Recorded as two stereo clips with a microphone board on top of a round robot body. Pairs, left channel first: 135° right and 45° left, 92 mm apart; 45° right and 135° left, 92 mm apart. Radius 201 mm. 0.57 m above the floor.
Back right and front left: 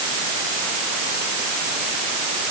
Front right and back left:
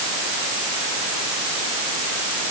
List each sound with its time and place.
Only background noise.